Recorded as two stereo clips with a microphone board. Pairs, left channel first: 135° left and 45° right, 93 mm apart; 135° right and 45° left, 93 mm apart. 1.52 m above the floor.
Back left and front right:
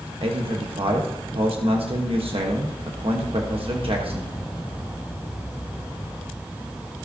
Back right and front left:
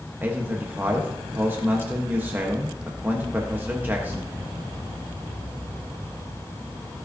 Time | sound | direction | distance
0.2 | a man speaking | 25° right | 1.1 m